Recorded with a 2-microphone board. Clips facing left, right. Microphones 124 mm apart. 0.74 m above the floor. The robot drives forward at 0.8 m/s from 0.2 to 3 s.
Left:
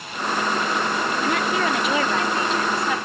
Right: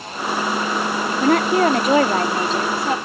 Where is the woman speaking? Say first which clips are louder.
Right 10 dB; 50° right (ahead or behind); by 3.0 s 30° right (ahead or behind).